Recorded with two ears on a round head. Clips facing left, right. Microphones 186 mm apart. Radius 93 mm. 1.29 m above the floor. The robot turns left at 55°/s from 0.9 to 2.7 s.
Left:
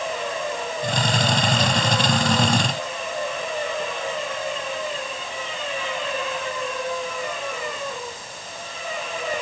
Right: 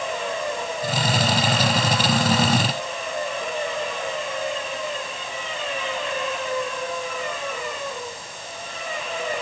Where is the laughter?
No laughter in this recording.